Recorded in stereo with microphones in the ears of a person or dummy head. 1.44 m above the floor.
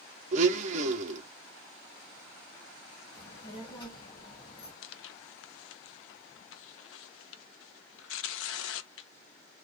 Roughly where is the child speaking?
Left.